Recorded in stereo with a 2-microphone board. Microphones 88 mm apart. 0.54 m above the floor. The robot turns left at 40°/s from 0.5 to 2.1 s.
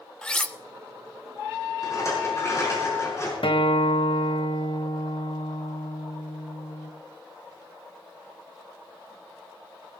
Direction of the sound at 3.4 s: 75° left (ahead or behind).